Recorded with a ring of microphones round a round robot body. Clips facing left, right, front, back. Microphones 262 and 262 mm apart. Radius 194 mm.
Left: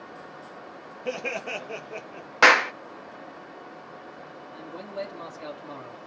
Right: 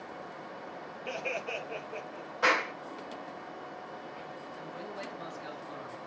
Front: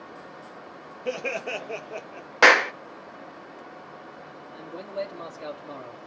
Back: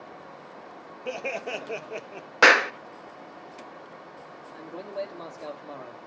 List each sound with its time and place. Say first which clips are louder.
1.1 s laughter: left 6 dB, front 3 dB; 65° left, 1.7 m; by 2.3 s 150° left, 1.3 m
2.4 s a clap: left 8 dB, front 1 dB; 95° left, 1.1 m
4.5 s a man speaking: left 8 dB, front 1 dB; 85° left, 3 m